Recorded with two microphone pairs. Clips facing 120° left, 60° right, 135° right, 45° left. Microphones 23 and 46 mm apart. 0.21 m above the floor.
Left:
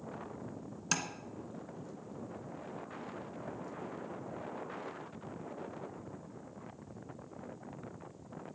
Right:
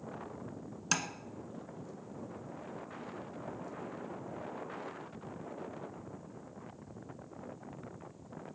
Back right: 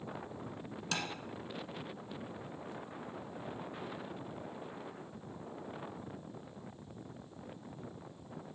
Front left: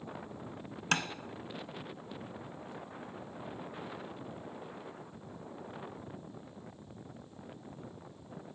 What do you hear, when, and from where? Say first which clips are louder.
0.9 s tapping: right 2 dB, front left 6 dB; 15° left, 1.2 m